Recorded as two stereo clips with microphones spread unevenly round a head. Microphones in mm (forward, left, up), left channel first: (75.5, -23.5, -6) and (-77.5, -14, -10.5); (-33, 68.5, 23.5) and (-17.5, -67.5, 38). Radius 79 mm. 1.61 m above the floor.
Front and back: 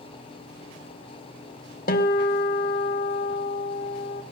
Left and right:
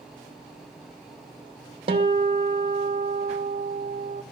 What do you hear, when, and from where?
1.9 s a guitar: 30° right, 2 m